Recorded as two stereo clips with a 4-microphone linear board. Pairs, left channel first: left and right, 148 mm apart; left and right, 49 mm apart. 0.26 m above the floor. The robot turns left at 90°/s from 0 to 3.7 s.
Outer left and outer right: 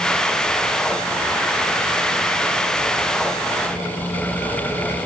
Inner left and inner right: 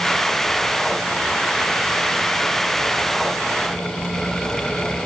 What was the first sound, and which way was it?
Only background noise.